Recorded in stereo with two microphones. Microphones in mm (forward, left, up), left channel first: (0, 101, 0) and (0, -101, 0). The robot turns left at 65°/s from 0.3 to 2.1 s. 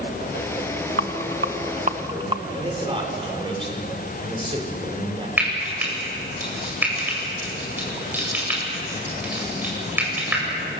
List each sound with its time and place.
1.0 s a rattle: 80° right, 1.0 m; by 2.4 s 25° right (ahead or behind), 1.0 m
2.5 s a man speaking: 25° right (ahead or behind), 5 m
5.4 s frying: 10° right (ahead or behind), 8 m